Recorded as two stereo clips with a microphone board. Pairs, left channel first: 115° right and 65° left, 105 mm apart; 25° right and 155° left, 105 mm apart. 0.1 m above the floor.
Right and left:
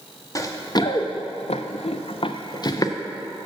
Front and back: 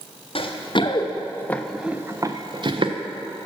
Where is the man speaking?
I don't hear a man speaking.